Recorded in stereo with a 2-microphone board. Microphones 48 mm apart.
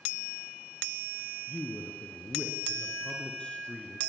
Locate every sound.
1.5 s a man speaking: 25° left (ahead or behind), 3 m